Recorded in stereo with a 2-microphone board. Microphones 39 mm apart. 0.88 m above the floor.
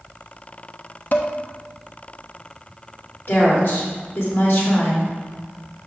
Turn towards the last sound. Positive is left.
turn(degrees=55)  # may be behind; listen again after turning